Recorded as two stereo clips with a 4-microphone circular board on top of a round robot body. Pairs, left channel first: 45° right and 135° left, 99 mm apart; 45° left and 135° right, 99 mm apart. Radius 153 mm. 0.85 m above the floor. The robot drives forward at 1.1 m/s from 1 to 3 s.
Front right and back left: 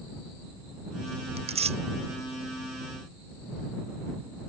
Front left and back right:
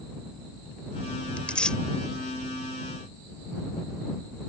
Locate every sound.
1.4 s tearing paper: 125° left; by 1.8 s 130° left